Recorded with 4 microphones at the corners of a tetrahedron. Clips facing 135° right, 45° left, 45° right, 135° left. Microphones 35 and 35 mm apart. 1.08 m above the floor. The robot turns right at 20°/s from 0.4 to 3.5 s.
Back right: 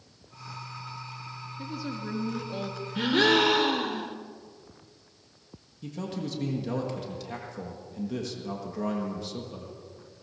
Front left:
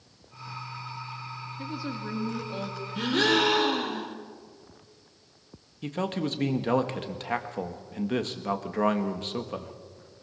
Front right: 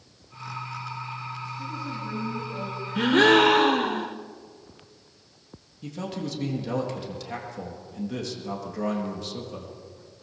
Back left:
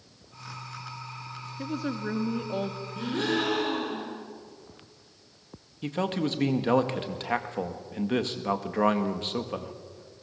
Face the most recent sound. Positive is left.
turn(degrees=85)